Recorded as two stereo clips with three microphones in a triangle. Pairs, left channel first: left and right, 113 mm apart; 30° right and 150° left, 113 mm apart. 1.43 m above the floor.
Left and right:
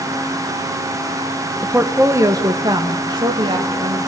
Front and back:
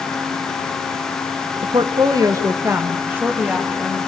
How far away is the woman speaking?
About 1.3 m.